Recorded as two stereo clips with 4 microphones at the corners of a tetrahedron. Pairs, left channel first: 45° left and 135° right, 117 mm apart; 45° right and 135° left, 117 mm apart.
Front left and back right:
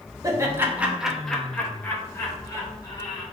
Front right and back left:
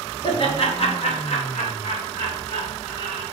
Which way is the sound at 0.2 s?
80° right.